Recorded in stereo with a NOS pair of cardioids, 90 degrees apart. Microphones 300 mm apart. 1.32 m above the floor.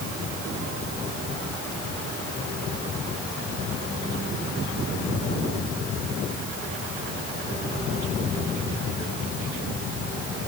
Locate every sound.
Only background noise.